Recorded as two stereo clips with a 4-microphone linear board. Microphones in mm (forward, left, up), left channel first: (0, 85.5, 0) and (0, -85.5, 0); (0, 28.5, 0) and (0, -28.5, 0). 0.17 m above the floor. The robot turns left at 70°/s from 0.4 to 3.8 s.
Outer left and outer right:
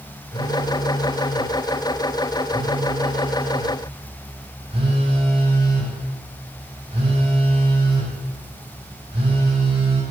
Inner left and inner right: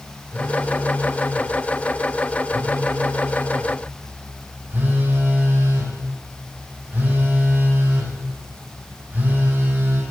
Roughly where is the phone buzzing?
Left.